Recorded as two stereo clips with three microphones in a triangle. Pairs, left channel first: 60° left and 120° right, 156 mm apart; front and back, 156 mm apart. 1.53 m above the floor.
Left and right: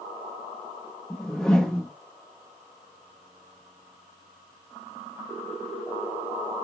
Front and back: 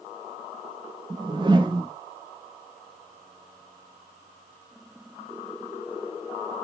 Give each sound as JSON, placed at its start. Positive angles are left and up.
{"t": 1.1, "sound": "a whoosh", "azimuth_deg": 145, "distance_m": 0.7}